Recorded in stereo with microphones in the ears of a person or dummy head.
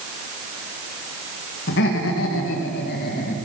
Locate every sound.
1.7 s laughter: 70° left (ahead or behind), 1.6 m; by 3.4 s 45° left (ahead or behind), 1.9 m